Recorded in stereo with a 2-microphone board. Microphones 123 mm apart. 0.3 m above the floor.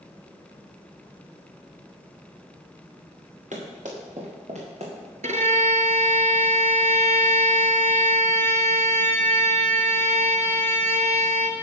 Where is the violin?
80° right, 1.0 m.